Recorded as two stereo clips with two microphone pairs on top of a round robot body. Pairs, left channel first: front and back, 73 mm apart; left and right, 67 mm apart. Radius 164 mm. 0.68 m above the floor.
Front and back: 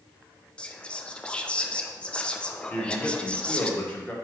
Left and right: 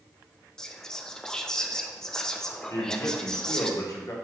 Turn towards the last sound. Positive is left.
turn(degrees=70)